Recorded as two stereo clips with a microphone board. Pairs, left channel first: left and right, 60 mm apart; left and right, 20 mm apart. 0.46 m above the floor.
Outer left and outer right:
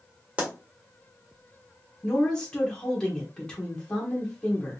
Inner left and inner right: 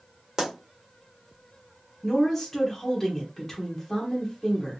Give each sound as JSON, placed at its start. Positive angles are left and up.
{"t": 0.4, "sound": "a pop", "side_deg": -25, "distance_m": 1.4}
{"t": 2.0, "sound": "a woman speaking", "side_deg": 15, "distance_m": 1.1}